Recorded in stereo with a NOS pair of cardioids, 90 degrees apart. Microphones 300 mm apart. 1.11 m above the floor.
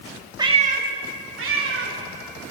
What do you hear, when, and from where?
0.4 s a cat meowing: 15° right, 1.1 m; by 2.0 s 50° right, 2.5 m